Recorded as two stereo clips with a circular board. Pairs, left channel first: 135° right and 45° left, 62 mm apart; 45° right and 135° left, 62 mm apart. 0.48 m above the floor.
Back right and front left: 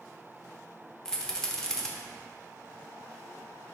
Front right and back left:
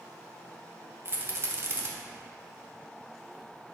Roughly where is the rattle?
Behind left.